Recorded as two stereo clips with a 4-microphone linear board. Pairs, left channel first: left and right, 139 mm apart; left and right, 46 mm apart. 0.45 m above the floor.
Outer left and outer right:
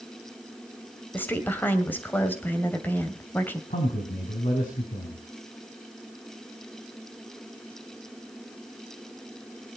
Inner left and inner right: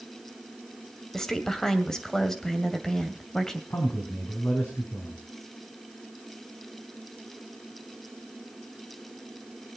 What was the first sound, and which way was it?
A woman speaking, 15° left (ahead or behind).